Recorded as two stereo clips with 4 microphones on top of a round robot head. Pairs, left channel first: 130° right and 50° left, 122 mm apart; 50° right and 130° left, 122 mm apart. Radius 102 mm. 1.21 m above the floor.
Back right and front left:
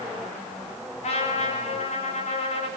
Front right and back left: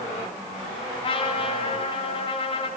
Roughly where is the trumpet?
Right.